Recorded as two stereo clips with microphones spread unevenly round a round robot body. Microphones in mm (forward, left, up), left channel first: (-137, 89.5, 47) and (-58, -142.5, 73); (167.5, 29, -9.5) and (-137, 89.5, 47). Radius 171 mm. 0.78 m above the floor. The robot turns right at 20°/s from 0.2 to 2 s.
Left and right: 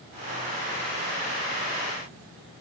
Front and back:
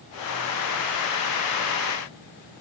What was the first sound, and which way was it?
Only background noise.